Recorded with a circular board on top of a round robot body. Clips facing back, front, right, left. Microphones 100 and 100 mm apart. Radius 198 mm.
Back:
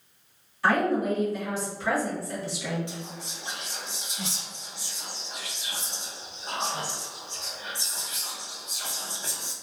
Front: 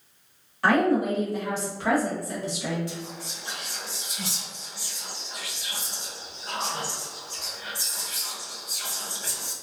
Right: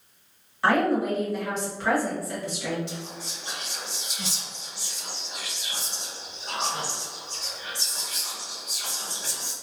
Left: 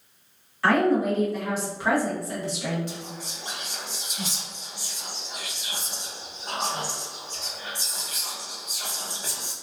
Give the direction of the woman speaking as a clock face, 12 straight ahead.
1 o'clock.